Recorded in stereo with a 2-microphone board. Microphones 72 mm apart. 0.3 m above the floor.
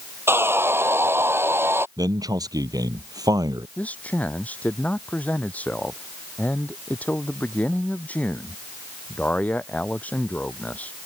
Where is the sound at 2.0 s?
65° right (ahead or behind).